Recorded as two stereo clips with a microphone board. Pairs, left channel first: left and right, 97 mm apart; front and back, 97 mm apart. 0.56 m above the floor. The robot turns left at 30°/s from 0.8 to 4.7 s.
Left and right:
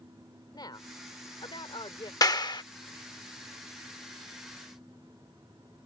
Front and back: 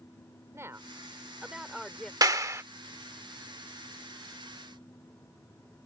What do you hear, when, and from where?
0.5 s a woman speaking: 120° left; by 2.1 s 80° left
2.2 s a clap: 135° left; by 2.6 s 120° left